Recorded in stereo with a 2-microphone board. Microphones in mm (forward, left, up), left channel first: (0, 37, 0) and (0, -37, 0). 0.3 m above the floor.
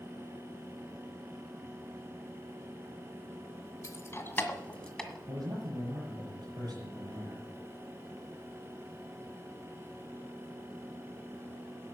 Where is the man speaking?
60° right (ahead or behind), 6.5 m.